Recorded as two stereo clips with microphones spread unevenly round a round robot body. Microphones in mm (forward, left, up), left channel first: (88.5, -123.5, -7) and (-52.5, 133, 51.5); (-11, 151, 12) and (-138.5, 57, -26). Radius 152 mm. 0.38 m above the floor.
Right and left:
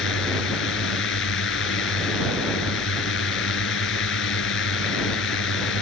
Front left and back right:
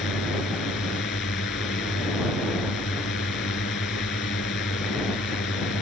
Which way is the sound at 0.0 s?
15° right.